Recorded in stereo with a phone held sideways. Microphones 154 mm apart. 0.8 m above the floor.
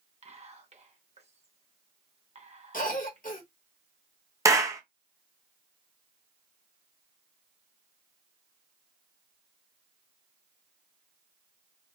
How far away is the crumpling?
No crumpling in this recording.